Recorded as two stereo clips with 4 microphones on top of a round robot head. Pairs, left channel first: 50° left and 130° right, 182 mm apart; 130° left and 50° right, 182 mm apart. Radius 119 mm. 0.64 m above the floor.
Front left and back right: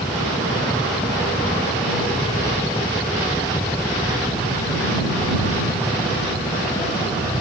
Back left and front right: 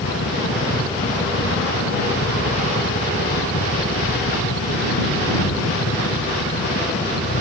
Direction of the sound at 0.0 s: 130° left.